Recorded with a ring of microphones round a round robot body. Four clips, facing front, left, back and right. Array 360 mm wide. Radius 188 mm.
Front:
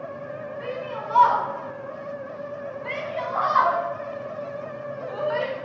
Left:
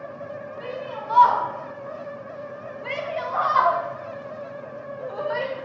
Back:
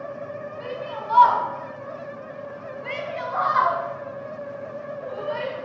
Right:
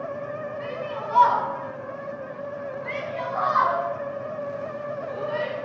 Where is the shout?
155° left, 3.5 m; by 5.6 s 75° left, 3.5 m.